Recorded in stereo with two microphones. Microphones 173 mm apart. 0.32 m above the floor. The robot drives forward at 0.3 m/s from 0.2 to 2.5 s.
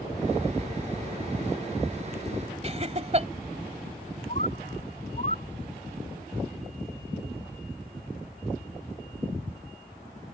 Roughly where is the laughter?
Right.